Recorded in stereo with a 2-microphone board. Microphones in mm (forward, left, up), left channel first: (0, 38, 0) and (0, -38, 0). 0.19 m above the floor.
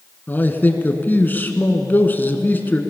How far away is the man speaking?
About 1.8 m.